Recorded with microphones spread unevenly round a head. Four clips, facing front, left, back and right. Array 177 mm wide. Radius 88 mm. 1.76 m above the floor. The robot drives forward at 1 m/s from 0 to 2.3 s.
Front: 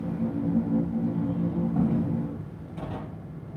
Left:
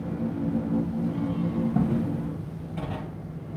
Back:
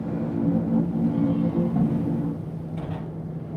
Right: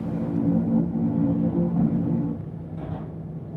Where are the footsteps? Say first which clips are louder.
Right 3 dB, back 2 dB; 130° left, 2.5 m; by 3.0 s 105° left, 2.5 m.